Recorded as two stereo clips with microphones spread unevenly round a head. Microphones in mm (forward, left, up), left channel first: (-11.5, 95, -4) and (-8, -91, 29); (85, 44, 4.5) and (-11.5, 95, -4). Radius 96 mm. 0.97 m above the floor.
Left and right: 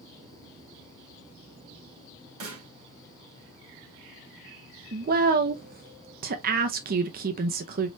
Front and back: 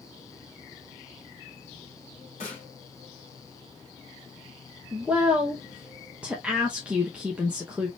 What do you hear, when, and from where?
2.4 s a snare drum: 85° right, 3.5 m
4.9 s a woman speaking: 130° right, 0.7 m